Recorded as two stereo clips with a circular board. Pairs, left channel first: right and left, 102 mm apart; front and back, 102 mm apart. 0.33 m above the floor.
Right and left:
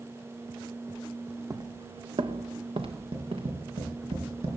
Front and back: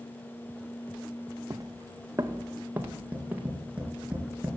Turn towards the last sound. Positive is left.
turn(degrees=105)